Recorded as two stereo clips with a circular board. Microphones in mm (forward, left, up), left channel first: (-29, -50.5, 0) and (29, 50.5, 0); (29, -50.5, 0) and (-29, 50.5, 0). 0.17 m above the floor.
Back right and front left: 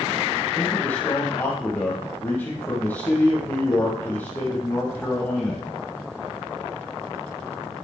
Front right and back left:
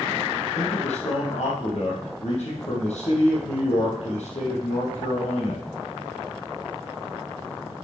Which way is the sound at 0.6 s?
45° right.